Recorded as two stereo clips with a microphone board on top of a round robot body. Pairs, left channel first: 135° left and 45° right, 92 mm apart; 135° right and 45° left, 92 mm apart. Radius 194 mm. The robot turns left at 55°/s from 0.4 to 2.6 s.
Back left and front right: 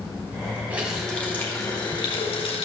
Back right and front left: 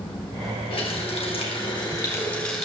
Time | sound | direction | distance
0.7 | a running tap | 115° right | 3 m